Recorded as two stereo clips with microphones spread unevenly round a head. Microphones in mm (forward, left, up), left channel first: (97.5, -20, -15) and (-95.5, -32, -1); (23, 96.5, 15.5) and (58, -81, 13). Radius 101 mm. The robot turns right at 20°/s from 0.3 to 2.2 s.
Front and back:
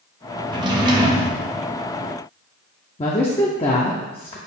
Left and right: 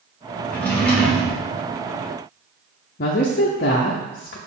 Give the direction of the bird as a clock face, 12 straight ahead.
No bird in this recording.